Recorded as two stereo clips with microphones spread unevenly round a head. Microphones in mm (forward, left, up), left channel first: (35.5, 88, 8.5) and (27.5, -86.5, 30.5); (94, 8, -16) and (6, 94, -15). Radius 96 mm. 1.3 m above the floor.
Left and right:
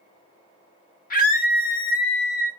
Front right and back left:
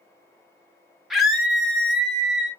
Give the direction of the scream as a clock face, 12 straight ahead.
10 o'clock.